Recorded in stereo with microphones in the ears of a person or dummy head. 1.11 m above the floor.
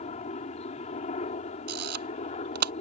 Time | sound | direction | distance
0.0 | a helicopter | 45° left (ahead or behind) | ?
1.7 | a camera shutter | 60° right (ahead or behind) | ?